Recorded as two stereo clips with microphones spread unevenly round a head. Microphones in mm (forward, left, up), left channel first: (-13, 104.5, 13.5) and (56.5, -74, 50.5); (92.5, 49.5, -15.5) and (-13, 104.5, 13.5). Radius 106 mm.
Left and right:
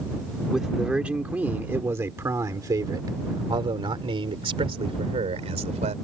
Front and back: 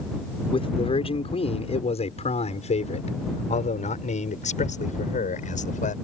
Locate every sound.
0.5 s a man speaking: 15° left; by 5.9 s 15° right